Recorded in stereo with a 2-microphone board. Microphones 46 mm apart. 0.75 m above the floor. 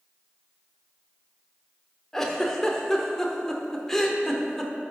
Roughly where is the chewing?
No chewing in this recording.